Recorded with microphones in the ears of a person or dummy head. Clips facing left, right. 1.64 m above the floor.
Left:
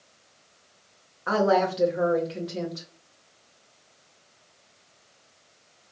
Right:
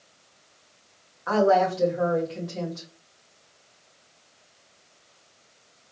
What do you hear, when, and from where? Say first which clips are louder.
1.3 s a woman speaking: right 2 dB; 45° left (ahead or behind), 1.7 m